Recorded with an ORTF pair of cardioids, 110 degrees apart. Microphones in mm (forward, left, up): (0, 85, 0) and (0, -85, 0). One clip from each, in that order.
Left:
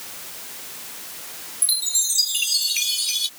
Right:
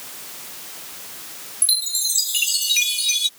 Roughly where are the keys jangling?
No keys jangling in this recording.